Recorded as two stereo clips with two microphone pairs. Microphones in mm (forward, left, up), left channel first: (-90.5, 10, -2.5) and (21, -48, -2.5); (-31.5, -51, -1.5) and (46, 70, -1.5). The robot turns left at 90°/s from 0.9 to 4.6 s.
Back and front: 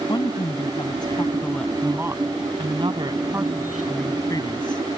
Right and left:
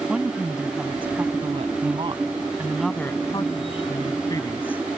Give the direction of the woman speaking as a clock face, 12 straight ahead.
7 o'clock.